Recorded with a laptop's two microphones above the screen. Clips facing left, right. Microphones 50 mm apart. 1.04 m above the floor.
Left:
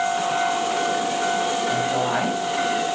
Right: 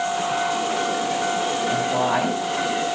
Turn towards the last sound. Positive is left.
turn(degrees=-5)  # may be behind; listen again after turning